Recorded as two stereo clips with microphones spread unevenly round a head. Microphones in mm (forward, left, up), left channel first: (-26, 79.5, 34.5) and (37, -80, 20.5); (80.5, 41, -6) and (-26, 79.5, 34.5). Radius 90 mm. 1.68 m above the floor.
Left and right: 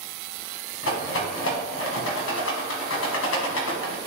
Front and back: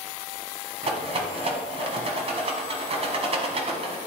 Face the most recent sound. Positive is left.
turn(degrees=130)